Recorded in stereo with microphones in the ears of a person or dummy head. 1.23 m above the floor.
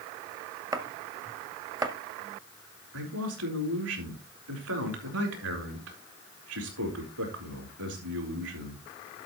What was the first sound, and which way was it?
Chopping, 20° right (ahead or behind).